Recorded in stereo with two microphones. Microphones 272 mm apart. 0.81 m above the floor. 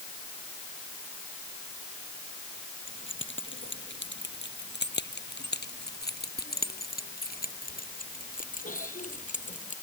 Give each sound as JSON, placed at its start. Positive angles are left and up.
{"t": 2.9, "sound": "keys jangling", "side_deg": 45}